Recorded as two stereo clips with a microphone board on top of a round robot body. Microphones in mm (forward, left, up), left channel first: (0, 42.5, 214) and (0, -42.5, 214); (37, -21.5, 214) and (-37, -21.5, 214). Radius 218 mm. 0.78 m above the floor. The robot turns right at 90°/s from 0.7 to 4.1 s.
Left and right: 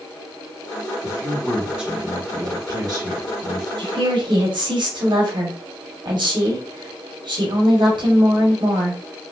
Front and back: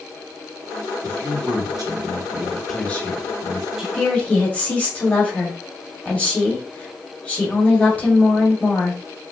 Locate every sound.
1.0 s a man speaking: 125° left, 1.8 m; by 3.7 s straight ahead, 1.8 m
3.8 s a woman speaking: 100° right, 1.7 m; by 9.0 s 70° right, 1.7 m